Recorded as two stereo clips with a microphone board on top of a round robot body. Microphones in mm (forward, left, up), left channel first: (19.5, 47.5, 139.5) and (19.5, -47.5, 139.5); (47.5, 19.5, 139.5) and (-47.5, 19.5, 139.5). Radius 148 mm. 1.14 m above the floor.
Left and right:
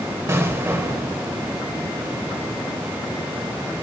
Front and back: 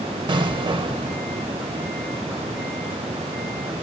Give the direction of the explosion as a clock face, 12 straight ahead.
5 o'clock.